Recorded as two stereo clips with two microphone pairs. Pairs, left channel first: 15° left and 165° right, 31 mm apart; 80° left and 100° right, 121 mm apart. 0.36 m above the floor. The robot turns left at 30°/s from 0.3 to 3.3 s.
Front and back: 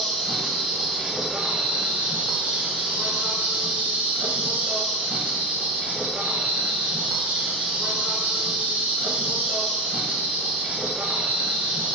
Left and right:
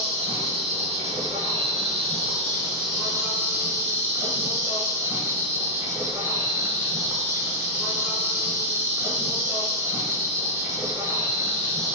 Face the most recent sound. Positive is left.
turn(degrees=-165)